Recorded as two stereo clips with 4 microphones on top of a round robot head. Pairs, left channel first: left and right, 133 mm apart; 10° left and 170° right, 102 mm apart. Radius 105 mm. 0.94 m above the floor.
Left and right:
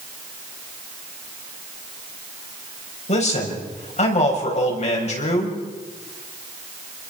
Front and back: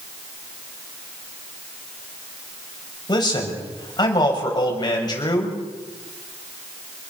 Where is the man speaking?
55° left, 6.5 m.